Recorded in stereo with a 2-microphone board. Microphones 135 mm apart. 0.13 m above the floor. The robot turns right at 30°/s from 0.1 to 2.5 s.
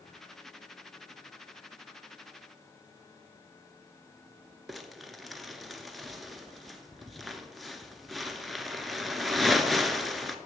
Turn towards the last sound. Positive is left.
turn(degrees=0)  # may be behind; listen again after turning